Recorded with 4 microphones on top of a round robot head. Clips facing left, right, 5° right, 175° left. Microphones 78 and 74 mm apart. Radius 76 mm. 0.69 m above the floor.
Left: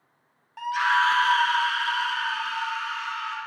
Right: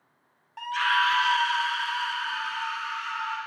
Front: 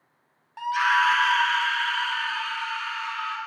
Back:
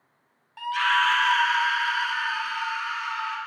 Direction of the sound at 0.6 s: 5° left.